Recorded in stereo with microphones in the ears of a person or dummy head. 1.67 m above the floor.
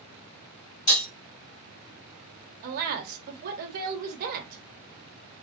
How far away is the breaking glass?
About 1.5 m.